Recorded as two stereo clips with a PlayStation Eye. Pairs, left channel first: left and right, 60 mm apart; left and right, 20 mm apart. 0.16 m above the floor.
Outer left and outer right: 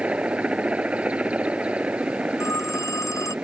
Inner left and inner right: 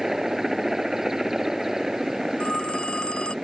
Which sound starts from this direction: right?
A helicopter, at 0.0 s.